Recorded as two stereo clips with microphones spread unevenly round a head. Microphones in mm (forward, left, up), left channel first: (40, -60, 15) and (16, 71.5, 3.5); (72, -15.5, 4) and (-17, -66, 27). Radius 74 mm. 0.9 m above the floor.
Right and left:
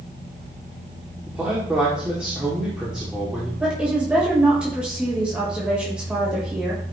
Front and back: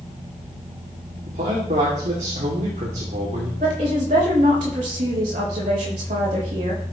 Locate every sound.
1.3 s a man speaking: 175° right, 2.5 m
3.6 s a woman speaking: 175° right, 4 m